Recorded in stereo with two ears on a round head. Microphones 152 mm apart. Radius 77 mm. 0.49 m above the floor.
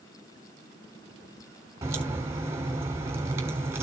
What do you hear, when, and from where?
1.8 s a crack: 15° right (ahead or behind), 3 m